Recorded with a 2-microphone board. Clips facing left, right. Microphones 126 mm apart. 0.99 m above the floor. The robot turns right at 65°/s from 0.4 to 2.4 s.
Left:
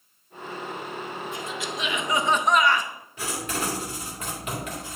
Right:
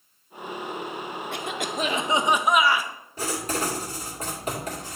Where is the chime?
No chime in this recording.